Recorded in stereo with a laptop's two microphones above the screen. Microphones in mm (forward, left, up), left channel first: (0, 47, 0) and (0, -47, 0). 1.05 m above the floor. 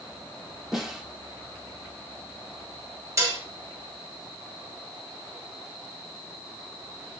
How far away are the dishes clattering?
About 1.2 m.